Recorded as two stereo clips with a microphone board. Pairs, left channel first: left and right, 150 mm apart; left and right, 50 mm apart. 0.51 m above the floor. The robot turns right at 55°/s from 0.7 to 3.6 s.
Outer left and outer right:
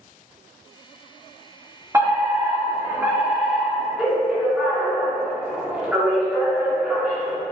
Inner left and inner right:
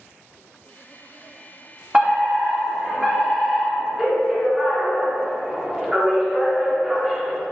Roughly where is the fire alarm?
Centre.